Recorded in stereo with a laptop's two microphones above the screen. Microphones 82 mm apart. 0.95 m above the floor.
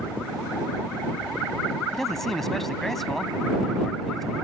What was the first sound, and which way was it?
A man speaking, 5° left (ahead or behind).